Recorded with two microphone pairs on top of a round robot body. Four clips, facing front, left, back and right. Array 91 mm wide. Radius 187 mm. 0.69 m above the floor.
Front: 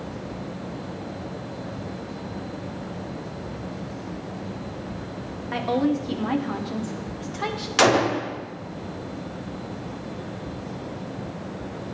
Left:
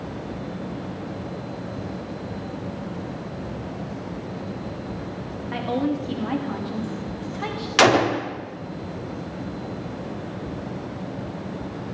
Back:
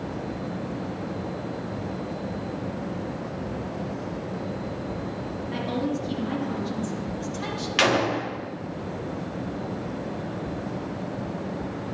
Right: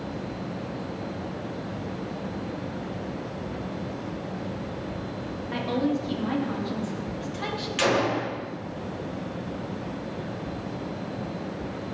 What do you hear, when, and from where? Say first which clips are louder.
5.5 s a woman speaking: left 2 dB, front 6 dB; 15° left, 2.5 m
7.8 s a gunshot: left 7 dB, front 4 dB; 60° left, 1.5 m